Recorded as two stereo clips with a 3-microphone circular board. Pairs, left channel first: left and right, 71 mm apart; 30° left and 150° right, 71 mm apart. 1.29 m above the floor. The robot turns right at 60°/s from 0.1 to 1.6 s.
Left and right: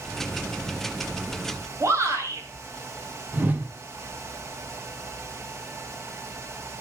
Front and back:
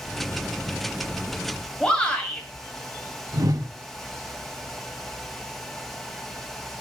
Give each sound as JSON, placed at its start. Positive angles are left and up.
{"t": 1.8, "sound": "a shout", "azimuth_deg": -45, "distance_m": 3.0}
{"t": 3.3, "sound": "a whoosh", "azimuth_deg": -150, "distance_m": 1.4}